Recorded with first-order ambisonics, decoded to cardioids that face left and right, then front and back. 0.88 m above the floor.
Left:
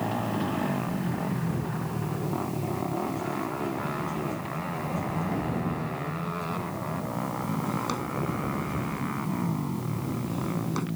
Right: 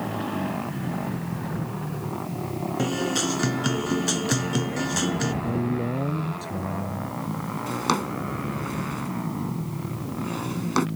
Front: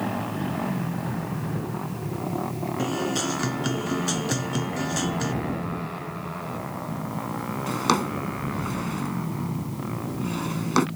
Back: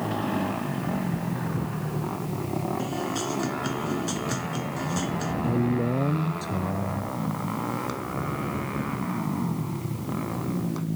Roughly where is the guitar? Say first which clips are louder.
Right 8 dB, front 3 dB; right.